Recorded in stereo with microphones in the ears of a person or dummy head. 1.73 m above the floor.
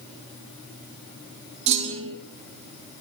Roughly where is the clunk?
Right.